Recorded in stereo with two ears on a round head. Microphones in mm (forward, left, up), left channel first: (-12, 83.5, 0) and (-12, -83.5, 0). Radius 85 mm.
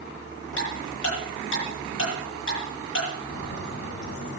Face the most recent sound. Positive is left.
turn(degrees=55)  # may be behind; listen again after turning